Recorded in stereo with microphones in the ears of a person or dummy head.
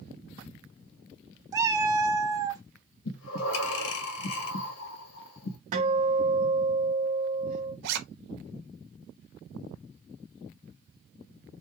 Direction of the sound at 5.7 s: 40° right (ahead or behind).